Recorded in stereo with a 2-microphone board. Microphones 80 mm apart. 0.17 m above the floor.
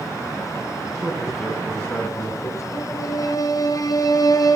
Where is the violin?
50° left (ahead or behind), 1.1 m.